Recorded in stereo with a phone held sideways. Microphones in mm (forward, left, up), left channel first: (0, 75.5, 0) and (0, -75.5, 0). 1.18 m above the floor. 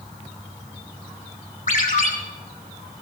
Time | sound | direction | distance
1.7 | a ringtone | 60° left (ahead or behind) | 3 m